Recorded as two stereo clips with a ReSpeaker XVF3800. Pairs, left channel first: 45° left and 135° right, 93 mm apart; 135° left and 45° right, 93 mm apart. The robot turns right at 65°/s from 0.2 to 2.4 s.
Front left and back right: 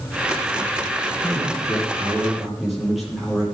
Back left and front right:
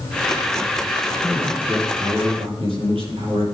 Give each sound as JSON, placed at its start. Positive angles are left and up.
{"t": 1.2, "sound": "a man speaking", "azimuth_deg": -125, "distance_m": 9.5}